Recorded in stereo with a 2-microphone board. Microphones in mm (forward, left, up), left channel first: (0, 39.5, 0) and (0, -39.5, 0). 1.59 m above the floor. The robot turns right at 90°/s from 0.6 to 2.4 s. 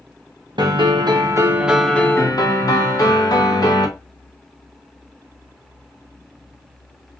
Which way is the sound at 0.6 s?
110° right.